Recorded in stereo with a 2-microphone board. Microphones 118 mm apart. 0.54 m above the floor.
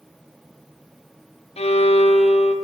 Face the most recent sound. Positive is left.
turn(degrees=60)  # may be behind; listen again after turning